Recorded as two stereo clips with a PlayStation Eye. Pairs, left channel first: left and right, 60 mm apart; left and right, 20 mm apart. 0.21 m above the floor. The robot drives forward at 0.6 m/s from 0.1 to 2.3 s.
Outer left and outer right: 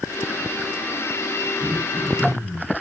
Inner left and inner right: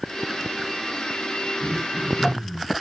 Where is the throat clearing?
75° right (ahead or behind), 6 m.